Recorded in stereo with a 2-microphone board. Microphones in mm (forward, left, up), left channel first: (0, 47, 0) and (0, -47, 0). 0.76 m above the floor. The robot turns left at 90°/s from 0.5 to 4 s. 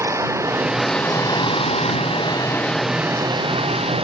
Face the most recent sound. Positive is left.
turn(degrees=-105)